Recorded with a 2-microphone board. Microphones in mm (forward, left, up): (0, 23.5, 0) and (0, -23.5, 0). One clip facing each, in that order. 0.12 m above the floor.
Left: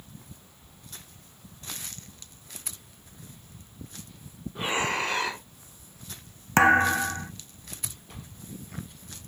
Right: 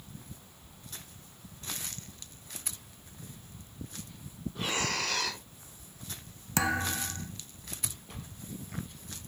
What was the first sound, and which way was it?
Breathing, 25° left (ahead or behind).